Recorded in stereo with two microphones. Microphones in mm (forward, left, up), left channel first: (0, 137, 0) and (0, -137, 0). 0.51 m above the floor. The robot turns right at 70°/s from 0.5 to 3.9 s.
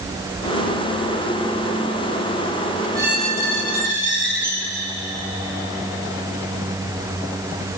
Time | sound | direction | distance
3.0 | a squeak | 15° right | 1.3 m